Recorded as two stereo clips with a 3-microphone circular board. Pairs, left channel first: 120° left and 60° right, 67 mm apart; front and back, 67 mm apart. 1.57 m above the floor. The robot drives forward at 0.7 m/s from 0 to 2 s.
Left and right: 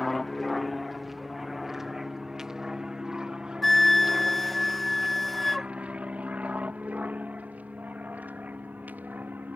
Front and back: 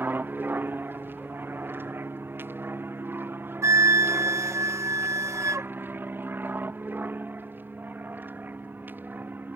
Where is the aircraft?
155° right; by 9.6 s 120° right.